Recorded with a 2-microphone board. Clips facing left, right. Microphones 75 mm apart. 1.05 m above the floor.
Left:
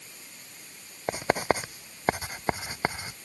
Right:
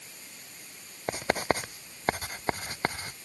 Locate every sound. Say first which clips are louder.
1.1 s writing: left 2 dB; 10° left (ahead or behind)